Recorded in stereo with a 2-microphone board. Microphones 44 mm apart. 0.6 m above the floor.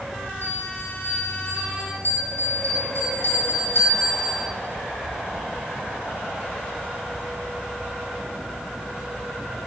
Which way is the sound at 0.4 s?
70° left (ahead or behind).